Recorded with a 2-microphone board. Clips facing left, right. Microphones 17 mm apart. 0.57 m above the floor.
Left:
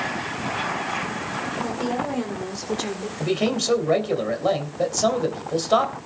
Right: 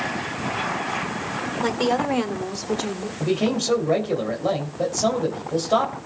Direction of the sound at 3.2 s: 15° left (ahead or behind).